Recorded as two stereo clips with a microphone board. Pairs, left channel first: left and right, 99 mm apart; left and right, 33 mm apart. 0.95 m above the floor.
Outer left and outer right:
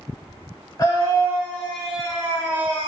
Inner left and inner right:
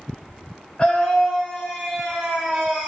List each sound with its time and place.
0.8 s a scream: 35° left (ahead or behind), 1.8 m; by 2.9 s 30° right (ahead or behind), 2.0 m